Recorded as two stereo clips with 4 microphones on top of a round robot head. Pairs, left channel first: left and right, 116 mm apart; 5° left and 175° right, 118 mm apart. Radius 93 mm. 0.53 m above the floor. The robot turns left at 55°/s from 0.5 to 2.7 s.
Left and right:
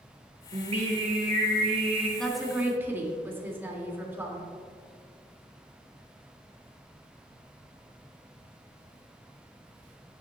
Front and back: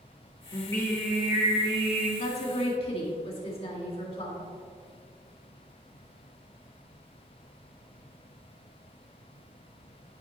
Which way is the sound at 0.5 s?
50° right.